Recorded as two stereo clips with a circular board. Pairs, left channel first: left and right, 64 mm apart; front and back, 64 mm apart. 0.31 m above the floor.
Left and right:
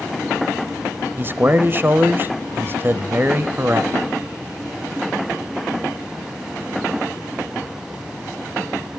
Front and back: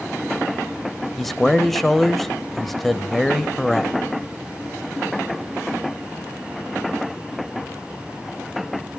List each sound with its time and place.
1.2 s a man speaking: 85° right, 1.1 m